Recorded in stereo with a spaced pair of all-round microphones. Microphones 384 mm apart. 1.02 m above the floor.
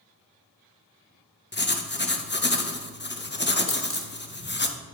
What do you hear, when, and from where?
1.5 s writing: 30° left (ahead or behind), 0.8 m
3.7 s a dropped coin: 35° left (ahead or behind), 1.4 m